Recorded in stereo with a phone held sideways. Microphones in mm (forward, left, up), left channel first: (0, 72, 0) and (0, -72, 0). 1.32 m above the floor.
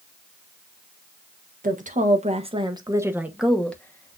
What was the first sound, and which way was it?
A woman speaking, 65° right (ahead or behind).